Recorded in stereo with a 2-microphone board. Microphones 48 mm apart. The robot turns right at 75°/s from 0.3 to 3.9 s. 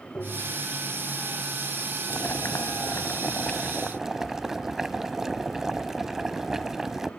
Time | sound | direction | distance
0.1 | tapping | 25° left (ahead or behind) | 6.5 m
2.1 | boiling | 50° left | 0.7 m